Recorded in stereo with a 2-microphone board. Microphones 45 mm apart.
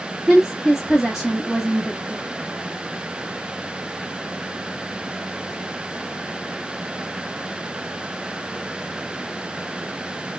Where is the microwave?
No microwave in this recording.